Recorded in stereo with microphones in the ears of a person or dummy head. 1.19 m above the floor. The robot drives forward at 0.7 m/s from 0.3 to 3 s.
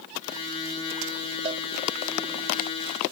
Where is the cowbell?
30° right (ahead or behind); by 1.6 s 35° right (ahead or behind).